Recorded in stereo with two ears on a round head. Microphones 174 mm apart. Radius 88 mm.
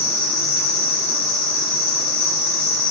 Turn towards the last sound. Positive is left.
turn(degrees=45)  # may be behind; listen again after turning